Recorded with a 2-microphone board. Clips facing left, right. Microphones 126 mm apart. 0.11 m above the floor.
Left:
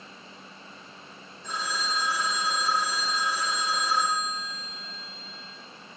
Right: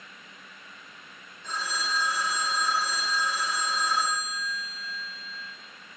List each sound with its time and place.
1.4 s a phone ringing: 10° left (ahead or behind), 5 m